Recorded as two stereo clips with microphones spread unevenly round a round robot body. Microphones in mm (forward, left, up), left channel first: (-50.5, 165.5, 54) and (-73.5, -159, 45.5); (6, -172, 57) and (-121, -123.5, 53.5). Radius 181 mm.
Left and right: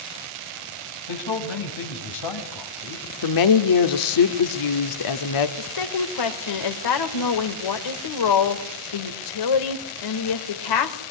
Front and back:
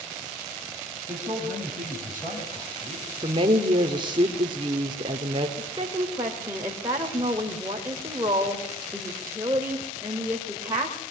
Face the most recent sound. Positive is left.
turn(degrees=80)